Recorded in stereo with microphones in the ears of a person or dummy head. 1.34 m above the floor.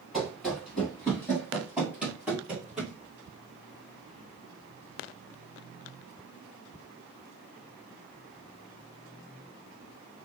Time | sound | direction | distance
0.1 | running footsteps | centre (ahead or behind) | 1.5 m